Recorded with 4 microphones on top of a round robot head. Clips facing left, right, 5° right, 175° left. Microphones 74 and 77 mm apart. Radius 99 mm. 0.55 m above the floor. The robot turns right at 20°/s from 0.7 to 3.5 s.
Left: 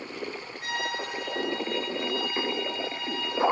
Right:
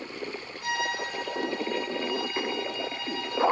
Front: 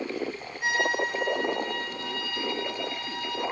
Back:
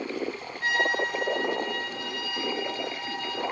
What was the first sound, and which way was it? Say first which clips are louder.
A violin: right 2 dB, even; 65° left.